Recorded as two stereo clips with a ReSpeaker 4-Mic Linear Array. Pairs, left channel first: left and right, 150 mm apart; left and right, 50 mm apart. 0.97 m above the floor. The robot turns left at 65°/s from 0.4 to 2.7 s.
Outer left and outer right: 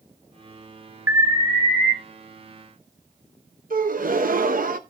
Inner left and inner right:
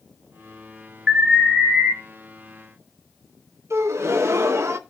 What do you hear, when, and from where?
1.1 s an alarm: 15° right, 1.8 m; by 1.9 s 75° right, 1.8 m
3.7 s a gasp: 65° right (ahead or behind), 0.8 m